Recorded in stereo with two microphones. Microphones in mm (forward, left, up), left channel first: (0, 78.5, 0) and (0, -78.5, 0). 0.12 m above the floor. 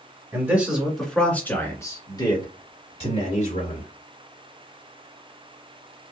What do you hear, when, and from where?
0.3 s a man speaking: 15° right (ahead or behind), 1.9 m; by 3.9 s 50° left (ahead or behind), 3 m